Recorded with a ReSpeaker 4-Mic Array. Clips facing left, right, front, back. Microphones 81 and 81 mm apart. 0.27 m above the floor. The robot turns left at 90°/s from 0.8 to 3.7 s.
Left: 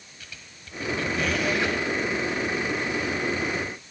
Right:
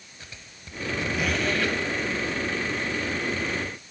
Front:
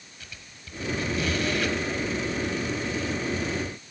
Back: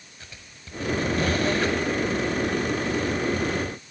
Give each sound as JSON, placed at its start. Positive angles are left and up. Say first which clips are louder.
{"t": 0.2, "sound": "a squeak", "louder": "right 1 dB, even", "azimuth_deg": -135, "distance_m": 1.1}